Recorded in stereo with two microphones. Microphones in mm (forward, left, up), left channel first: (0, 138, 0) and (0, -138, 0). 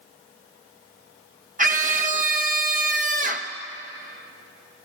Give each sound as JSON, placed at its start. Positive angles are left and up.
{"t": 1.6, "sound": "a scream", "side_deg": -30, "distance_m": 1.1}